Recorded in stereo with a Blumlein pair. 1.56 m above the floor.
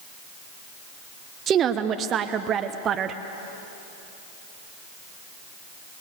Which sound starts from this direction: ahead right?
A woman speaking, at 1.5 s.